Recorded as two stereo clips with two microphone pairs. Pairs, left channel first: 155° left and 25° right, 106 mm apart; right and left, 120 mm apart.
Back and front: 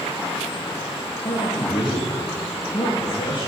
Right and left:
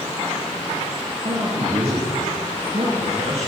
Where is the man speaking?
115° left, 3.5 m.